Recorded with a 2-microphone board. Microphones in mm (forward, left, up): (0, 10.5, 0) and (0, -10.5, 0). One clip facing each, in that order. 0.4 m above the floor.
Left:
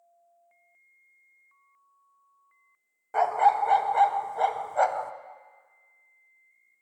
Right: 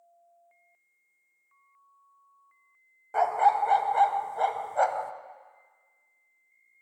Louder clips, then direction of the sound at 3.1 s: Left 1 dB; 5° left (ahead or behind).